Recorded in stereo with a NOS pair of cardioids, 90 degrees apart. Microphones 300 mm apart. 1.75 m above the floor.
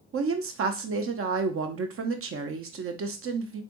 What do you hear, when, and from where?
0.1 s a woman speaking: 45° right, 0.7 m